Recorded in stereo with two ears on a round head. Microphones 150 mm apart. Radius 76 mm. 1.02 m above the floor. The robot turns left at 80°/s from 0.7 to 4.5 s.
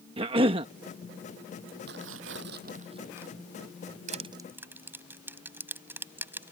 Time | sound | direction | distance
0.2 | a cough | 30° right (ahead or behind) | ?
1.9 | tearing paper | 60° right | ?
4.1 | crushing | 45° right (ahead or behind) | ?